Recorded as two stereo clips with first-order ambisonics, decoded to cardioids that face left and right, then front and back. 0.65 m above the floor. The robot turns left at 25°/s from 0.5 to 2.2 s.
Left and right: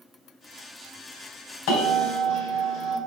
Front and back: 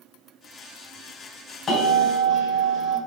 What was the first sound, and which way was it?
A bell, 70° left.